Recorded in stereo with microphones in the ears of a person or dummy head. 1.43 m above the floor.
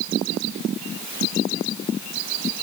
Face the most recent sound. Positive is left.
No sound to turn to.